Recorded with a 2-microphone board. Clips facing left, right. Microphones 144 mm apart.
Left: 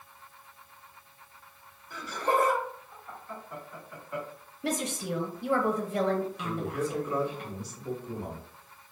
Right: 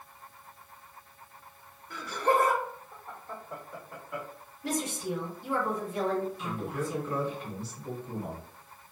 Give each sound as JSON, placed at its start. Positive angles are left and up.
{"t": 1.9, "sound": "laughter", "side_deg": -55, "distance_m": 1.5}
{"t": 4.6, "sound": "a woman speaking", "side_deg": 60, "distance_m": 0.6}
{"t": 6.4, "sound": "a man speaking", "side_deg": 10, "distance_m": 1.1}